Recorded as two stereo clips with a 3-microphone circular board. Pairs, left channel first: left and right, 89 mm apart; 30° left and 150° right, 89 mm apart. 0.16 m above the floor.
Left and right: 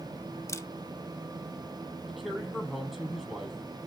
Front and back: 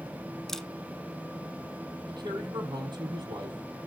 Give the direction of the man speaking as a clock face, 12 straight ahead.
6 o'clock.